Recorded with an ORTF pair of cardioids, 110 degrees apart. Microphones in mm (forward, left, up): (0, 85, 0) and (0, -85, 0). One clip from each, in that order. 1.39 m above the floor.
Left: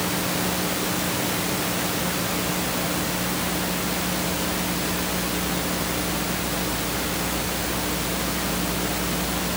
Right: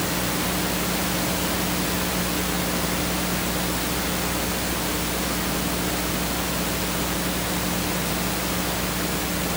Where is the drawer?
No drawer in this recording.